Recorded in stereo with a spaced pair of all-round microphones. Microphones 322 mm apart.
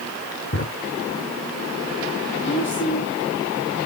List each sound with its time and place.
0.5 s a drawer: 40° left (ahead or behind), 3 m
2.4 s a woman speaking: 35° left (ahead or behind), 2.5 m